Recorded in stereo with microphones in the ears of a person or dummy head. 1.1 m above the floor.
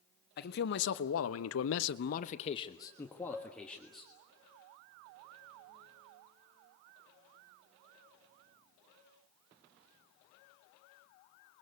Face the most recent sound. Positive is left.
turn(degrees=-15)  # may be behind; listen again after turning